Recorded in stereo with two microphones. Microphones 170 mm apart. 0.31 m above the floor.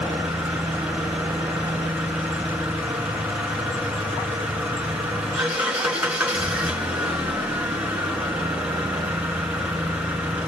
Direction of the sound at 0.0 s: 10° right (ahead or behind).